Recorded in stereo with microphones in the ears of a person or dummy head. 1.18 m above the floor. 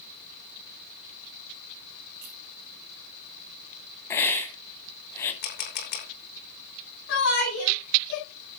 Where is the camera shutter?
45° left (ahead or behind), 2 m.